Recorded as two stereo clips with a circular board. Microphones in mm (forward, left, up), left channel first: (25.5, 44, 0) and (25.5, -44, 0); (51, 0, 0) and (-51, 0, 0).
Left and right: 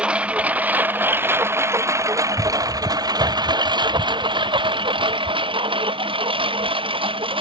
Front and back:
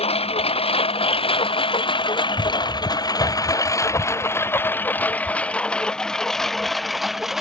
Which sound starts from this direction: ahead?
A lawn mower, at 0.0 s.